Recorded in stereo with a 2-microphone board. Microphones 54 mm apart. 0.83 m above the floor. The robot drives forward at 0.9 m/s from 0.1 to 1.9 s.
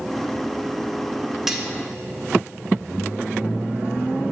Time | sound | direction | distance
1.5 | cutlery clinking | 10° right (ahead or behind) | 1.6 m